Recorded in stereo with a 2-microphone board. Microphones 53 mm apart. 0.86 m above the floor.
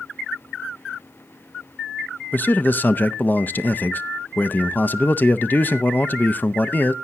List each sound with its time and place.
2.3 s a man speaking: 35° left (ahead or behind), 0.6 m